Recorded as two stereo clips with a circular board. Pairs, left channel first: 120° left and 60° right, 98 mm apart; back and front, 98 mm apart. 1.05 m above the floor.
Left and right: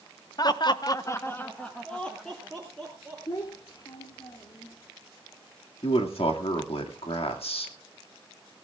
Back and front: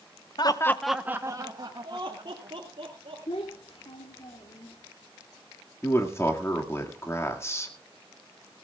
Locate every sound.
0.4 s laughter: 155° left, 0.8 m; by 3.2 s 35° left, 3.5 m
3.3 s a child speaking: 160° left, 1.5 m
5.8 s a man speaking: 120° left, 2 m